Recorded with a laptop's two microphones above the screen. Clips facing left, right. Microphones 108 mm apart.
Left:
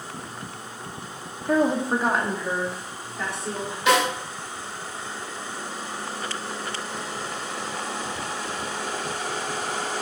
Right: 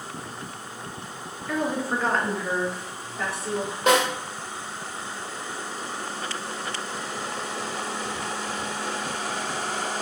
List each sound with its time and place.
1.5 s a woman speaking: 45° left (ahead or behind), 0.6 m; by 3.8 s 5° right (ahead or behind), 3 m
3.9 s a snare drum: 50° right (ahead or behind), 1.9 m